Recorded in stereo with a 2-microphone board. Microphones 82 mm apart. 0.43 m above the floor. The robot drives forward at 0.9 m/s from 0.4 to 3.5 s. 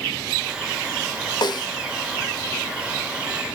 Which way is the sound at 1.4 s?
60° left (ahead or behind).